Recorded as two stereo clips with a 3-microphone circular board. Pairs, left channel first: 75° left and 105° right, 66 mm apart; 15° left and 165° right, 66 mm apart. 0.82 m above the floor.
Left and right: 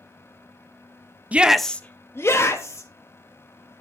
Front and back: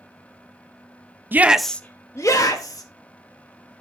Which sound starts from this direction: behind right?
A shout, at 1.3 s.